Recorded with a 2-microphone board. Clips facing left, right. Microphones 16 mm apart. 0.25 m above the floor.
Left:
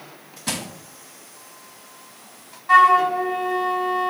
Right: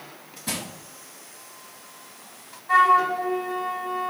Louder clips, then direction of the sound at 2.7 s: Left 4 dB; 50° left (ahead or behind).